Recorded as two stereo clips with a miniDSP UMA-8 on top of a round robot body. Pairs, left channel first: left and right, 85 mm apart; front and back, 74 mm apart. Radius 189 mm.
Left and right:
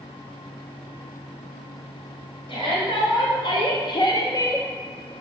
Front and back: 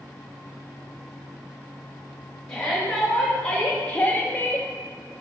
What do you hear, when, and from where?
2.5 s a shout: 80° left, 3 m; by 4.7 s 35° left, 0.9 m